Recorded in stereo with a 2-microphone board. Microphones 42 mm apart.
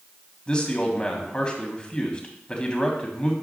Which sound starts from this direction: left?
A man speaking, at 0.5 s.